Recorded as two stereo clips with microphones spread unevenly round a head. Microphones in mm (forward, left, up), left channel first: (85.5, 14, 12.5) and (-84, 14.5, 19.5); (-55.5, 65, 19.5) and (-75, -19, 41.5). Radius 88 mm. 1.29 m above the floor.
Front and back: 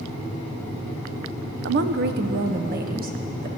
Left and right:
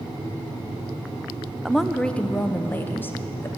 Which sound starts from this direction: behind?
A woman speaking, at 1.6 s.